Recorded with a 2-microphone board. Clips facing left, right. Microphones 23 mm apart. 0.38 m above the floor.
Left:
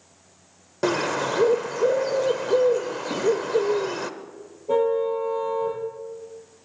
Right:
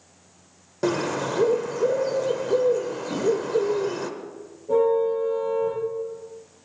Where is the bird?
20° left (ahead or behind), 0.8 m.